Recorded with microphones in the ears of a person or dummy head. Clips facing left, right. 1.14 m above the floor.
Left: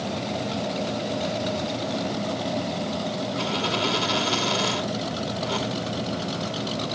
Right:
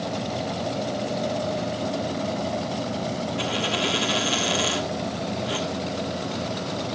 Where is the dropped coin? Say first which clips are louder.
Left 1 dB; 20° right (ahead or behind), 1.4 m.